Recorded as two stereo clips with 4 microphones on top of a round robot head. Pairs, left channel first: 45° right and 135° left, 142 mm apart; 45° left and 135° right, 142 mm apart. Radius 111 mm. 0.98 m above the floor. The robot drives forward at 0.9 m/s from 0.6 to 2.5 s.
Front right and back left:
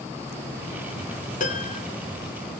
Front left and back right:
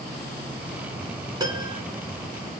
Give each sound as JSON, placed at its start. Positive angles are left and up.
{"t": 1.4, "sound": "a piano", "azimuth_deg": -70, "distance_m": 2.5}